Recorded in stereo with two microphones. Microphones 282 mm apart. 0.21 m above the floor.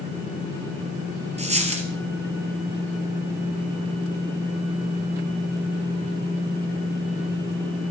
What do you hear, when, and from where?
1.4 s a dropped coin: 25° right (ahead or behind), 1.9 m